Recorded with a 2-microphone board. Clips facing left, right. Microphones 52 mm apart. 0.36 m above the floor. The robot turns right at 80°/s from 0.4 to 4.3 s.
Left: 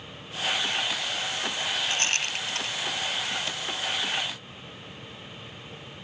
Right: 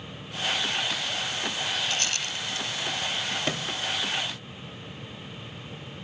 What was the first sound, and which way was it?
A rattle, 25° left (ahead or behind).